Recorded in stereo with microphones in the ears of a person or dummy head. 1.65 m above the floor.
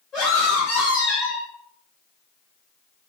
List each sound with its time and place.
0.1 s a scream: 10° left (ahead or behind), 1.9 m; by 1.5 s 10° right (ahead or behind), 2 m